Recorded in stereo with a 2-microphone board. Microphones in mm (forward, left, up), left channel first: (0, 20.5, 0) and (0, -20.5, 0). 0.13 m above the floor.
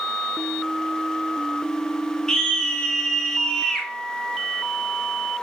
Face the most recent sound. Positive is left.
turn(degrees=15)  # may be behind; listen again after turning